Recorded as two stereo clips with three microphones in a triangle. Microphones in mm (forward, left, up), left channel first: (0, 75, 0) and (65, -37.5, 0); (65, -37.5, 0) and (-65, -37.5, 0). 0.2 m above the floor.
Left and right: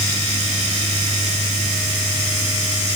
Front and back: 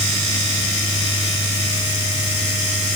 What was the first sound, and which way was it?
Only background noise.